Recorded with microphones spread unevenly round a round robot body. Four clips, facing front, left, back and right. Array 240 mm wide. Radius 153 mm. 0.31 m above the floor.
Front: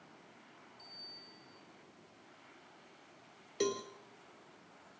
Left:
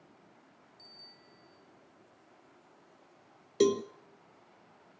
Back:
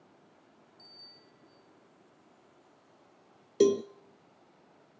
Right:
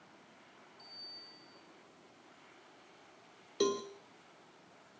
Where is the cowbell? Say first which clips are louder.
Left 6 dB, back 11 dB; 165° left, 0.5 m.